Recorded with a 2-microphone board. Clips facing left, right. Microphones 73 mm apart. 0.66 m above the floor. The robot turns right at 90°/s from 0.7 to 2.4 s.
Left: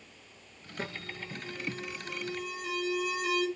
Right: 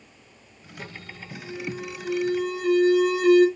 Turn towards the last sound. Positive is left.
turn(degrees=-75)